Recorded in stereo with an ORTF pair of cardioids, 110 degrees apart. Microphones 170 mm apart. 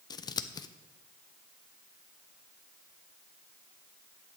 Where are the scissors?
25° left, 0.6 m.